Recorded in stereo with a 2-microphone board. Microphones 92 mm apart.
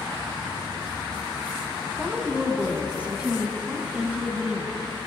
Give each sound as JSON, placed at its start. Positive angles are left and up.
{"t": 2.0, "sound": "a woman speaking", "side_deg": -15, "distance_m": 1.3}